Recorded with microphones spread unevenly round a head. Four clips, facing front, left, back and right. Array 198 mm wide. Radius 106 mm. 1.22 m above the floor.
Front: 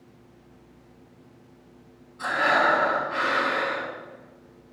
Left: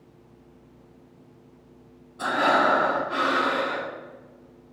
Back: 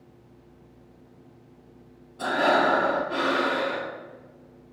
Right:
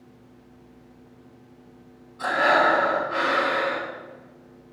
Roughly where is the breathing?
Behind left.